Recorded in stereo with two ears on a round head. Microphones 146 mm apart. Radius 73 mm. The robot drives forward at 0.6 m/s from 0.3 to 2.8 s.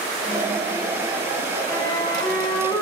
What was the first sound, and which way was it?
A flute, 20° left (ahead or behind).